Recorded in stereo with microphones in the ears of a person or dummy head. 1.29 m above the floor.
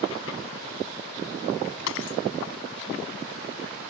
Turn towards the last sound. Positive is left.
turn(degrees=75)  # may be behind; listen again after turning